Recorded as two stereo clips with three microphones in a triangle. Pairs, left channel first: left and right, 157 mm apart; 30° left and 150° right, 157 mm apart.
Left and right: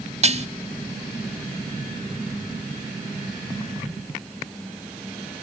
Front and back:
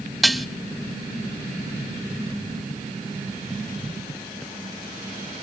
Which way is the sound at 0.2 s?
60° right.